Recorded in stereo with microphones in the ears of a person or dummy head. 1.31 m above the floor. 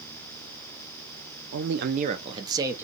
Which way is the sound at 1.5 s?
55° right (ahead or behind).